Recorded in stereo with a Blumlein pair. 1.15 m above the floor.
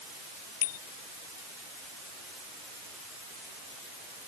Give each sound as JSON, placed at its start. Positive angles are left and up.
{"t": 0.6, "sound": "a bicycle bell", "azimuth_deg": 50}